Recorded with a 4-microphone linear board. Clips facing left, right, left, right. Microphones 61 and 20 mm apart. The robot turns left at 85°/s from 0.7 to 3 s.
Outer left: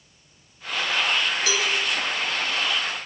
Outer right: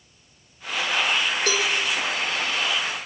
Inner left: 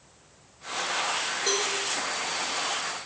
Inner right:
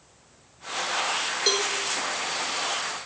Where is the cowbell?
45° right (ahead or behind), 1.6 m; by 1.7 s 50° right (ahead or behind), 1.6 m.